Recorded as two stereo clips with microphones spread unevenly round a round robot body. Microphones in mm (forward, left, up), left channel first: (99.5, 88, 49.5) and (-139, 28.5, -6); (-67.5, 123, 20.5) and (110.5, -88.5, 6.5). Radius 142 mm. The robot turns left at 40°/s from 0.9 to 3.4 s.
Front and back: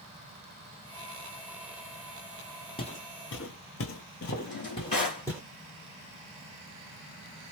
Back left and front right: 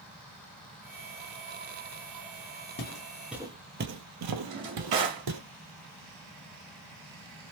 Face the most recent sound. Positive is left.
turn(degrees=-55)